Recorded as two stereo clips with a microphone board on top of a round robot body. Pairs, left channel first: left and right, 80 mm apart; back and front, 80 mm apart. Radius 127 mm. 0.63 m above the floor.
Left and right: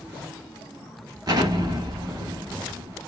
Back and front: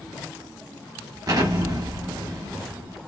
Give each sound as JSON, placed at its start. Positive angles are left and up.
{"t": 1.3, "sound": "an explosion", "azimuth_deg": -45, "distance_m": 0.8}